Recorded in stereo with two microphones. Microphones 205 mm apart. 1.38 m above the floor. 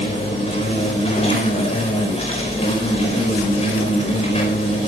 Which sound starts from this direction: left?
An insect, at 0.0 s.